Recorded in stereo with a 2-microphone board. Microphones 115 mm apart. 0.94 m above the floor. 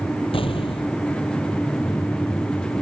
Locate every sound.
0.3 s an explosion: 55° left (ahead or behind)